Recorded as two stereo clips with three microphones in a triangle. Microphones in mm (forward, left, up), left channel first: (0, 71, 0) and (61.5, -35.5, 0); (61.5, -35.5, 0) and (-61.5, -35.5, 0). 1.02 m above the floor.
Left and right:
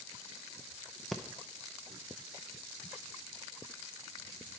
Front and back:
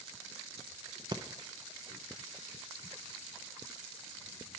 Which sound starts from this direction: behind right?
Breathing, at 1.1 s.